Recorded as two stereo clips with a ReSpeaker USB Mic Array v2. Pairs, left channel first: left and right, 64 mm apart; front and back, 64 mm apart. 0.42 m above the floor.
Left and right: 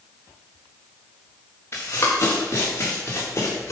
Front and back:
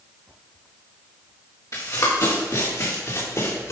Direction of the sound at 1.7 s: 40° left.